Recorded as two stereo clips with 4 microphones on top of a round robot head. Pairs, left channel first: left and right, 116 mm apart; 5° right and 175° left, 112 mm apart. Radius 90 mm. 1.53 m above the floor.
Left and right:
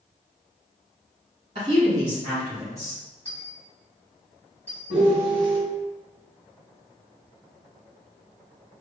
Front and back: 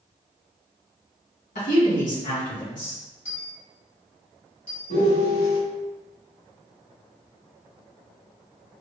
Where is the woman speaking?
30° right, 1.8 m; by 3.0 s 10° left, 1.8 m.